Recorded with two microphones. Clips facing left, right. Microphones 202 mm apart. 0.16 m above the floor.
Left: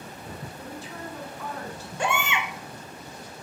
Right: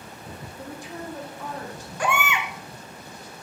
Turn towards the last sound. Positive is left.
turn(degrees=25)  # may be behind; listen again after turning